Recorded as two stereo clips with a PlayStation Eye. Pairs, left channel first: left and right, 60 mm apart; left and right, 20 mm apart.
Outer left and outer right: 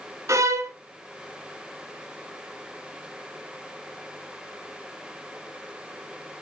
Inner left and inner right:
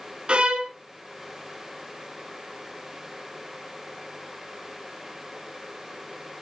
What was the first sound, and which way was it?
A violin, 60° right (ahead or behind).